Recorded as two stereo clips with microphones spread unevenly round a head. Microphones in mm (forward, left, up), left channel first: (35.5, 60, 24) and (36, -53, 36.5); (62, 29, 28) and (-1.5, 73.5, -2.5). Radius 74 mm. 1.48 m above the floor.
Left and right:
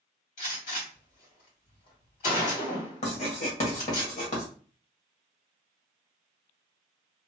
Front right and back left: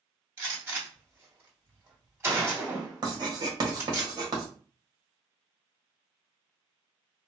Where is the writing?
120° left, 1.5 m.